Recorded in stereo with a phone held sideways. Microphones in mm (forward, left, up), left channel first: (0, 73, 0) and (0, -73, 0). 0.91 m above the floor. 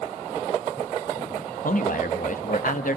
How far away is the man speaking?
About 1.5 m.